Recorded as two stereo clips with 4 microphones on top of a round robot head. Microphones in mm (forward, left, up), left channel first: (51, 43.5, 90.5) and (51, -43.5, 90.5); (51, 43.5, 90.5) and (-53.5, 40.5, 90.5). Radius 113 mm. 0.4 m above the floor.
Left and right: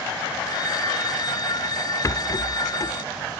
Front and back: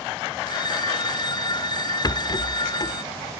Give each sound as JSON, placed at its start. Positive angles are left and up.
{"t": 0.5, "sound": "a phone ringing", "azimuth_deg": 50}
{"t": 2.0, "sound": "a rattle", "azimuth_deg": 45}